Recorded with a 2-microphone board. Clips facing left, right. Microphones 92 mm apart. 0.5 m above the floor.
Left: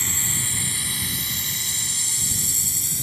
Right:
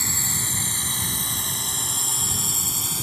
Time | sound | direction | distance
0.0 | a drone | 15° right (ahead or behind) | ?